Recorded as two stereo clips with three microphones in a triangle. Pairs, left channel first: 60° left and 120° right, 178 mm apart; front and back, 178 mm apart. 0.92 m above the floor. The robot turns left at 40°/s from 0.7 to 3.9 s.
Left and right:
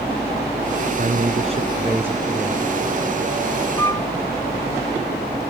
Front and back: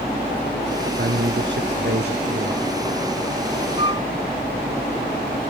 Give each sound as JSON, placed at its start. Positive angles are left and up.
{"t": 1.0, "sound": "a man speaking", "azimuth_deg": -155}
{"t": 3.8, "sound": "a flute", "azimuth_deg": 130}